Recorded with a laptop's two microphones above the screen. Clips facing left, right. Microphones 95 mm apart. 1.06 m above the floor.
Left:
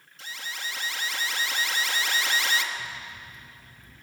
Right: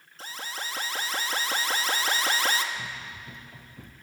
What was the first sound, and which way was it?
An alarm, 40° right (ahead or behind).